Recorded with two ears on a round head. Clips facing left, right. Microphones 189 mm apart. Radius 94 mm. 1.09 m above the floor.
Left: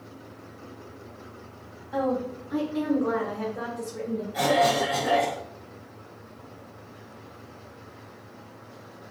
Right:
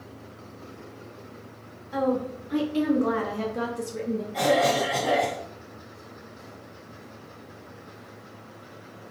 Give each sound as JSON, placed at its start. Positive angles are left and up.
{"t": 1.9, "sound": "a woman speaking", "side_deg": -30, "distance_m": 1.0}
{"t": 4.3, "sound": "a cough", "side_deg": 5, "distance_m": 1.3}